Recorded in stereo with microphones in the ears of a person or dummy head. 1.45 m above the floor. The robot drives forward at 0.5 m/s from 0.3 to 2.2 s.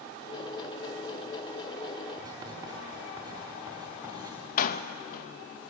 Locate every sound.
2.2 s writing: 25° right (ahead or behind), 4 m
4.6 s a door slam: 50° left (ahead or behind), 1.0 m